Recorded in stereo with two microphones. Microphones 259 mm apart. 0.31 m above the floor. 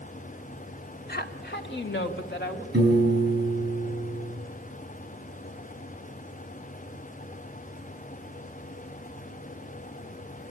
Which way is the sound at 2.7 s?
40° right (ahead or behind).